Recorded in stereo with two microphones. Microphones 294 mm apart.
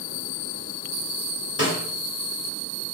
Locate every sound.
1.6 s a snare drum: 55° left (ahead or behind), 1.3 m